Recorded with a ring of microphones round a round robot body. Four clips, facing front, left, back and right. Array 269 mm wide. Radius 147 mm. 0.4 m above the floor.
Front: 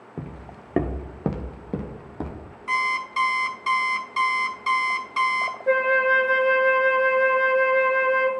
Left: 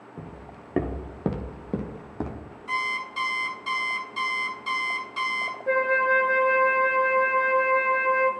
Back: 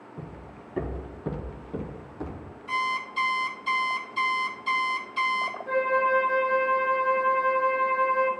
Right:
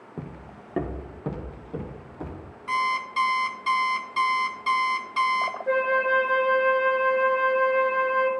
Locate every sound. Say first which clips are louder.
0.2 s footsteps: right 3 dB, front 6 dB; 30° right, 0.5 m; by 2.5 s 55° left, 1.5 m
2.7 s an alarm clock: right 5 dB, front 3 dB; 25° right, 1.3 m
5.7 s a flute: left 1 dB, front 4 dB; straight ahead, 1.4 m